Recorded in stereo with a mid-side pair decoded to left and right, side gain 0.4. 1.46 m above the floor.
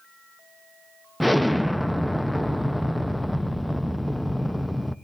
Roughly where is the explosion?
Ahead.